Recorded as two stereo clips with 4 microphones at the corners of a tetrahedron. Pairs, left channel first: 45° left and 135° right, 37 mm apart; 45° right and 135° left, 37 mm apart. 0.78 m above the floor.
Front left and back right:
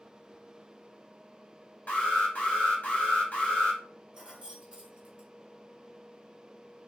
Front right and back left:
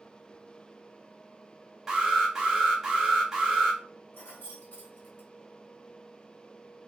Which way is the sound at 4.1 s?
70° right.